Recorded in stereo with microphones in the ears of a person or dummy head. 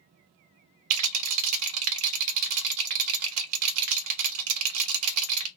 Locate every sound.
0.9 s a rattle: 80° right, 0.6 m